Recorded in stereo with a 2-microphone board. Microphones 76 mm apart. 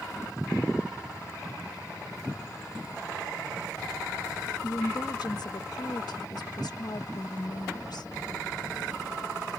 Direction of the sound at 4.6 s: 65° left (ahead or behind).